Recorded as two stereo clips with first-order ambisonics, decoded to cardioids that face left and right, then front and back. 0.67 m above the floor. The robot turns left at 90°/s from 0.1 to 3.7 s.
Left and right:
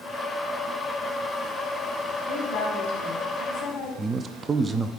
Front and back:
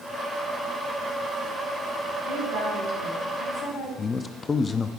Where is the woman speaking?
165° left, 4.5 m; by 3.9 s 35° left, 4.5 m.